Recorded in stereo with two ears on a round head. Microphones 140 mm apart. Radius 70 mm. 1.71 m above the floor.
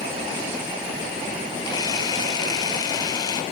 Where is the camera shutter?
25° left (ahead or behind), 1.6 m.